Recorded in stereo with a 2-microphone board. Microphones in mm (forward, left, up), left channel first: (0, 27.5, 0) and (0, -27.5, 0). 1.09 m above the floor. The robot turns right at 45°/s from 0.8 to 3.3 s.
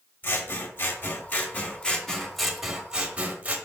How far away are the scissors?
About 0.7 m.